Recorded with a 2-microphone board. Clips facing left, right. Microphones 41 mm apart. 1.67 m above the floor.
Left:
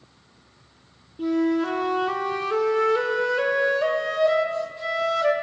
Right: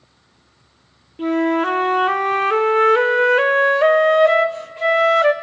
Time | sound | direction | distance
1.2 | a flute | 50° right (ahead or behind) | 0.9 m